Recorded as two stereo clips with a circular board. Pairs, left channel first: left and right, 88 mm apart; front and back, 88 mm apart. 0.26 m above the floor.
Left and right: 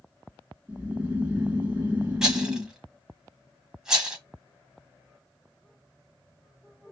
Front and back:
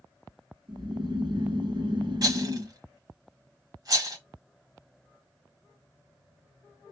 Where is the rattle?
170° right, 1.6 m.